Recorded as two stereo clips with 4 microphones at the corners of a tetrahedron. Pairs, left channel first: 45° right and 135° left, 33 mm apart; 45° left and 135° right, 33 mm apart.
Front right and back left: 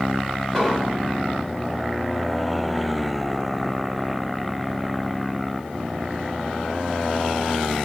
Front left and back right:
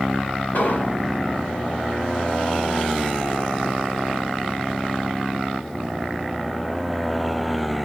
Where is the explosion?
40° left, 1.7 m.